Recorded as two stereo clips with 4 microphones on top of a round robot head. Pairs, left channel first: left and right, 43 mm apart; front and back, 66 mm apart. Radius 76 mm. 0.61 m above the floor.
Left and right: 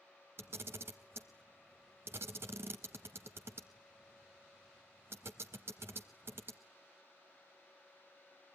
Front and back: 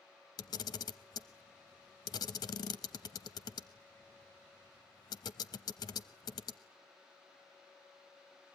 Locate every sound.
0.4 s a camera shutter: 40° right, 0.7 m